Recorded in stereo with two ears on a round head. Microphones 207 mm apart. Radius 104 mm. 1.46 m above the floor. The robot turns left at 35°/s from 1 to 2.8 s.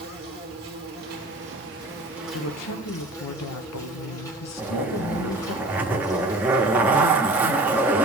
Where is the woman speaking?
70° left (ahead or behind), 0.9 m; by 5.6 s 80° left, 0.9 m.